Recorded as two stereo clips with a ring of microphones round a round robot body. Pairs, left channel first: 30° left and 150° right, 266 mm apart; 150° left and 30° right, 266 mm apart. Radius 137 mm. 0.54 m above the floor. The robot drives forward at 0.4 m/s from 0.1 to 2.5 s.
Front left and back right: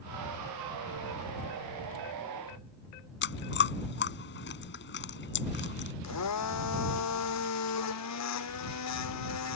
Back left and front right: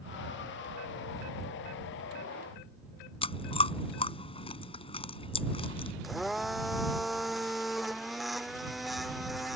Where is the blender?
60° left.